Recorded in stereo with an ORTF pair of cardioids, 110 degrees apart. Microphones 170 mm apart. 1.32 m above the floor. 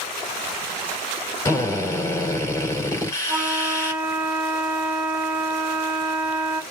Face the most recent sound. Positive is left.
turn(degrees=-10)